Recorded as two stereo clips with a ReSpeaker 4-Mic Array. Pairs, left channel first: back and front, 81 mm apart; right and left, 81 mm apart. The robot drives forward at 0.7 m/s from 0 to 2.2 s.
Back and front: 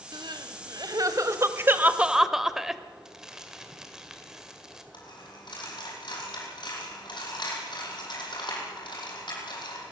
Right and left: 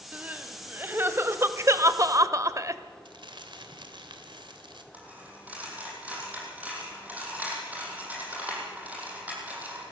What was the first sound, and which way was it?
Crying, 20° left.